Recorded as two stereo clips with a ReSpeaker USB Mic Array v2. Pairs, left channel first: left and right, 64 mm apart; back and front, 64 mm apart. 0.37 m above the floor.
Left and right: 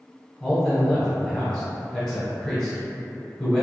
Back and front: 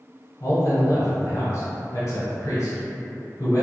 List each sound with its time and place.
0.4 s a man speaking: 165° left, 1.3 m